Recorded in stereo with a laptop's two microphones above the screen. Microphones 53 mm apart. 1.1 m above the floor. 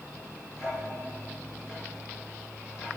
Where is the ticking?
10° right (ahead or behind), 5 m.